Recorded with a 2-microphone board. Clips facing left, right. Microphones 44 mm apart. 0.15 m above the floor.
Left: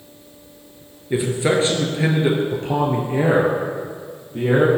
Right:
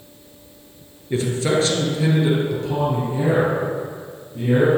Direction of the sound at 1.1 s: 15° left (ahead or behind).